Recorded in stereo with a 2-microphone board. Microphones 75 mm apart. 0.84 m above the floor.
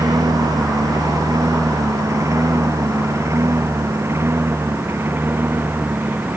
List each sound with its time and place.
0.0 s a lawn mower: 55° right (ahead or behind); by 6.4 s 25° right (ahead or behind)